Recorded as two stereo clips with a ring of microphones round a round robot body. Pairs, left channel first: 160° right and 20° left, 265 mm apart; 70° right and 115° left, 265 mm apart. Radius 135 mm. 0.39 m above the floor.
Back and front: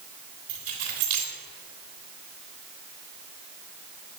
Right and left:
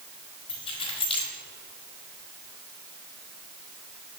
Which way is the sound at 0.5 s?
5° left.